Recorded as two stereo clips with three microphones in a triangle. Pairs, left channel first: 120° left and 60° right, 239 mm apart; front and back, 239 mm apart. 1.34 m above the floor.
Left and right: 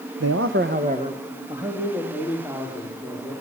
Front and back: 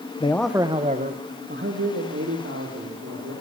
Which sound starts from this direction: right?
A man speaking, at 0.2 s.